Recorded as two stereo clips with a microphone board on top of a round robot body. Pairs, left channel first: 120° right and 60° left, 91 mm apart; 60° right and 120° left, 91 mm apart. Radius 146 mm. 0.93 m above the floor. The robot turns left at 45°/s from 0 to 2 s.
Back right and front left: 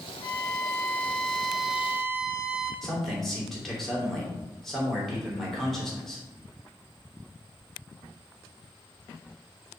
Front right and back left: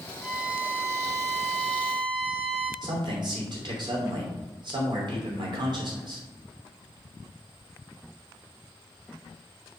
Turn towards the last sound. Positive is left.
turn(degrees=155)